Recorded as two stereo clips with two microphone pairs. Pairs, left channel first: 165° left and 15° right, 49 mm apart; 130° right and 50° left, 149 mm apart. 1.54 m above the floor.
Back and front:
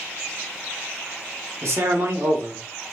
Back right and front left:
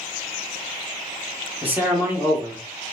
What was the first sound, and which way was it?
A man speaking, 25° right.